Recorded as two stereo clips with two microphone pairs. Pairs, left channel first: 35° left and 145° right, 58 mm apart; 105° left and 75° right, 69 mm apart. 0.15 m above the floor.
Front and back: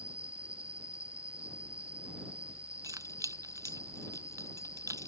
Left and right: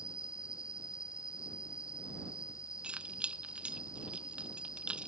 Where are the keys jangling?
150° right.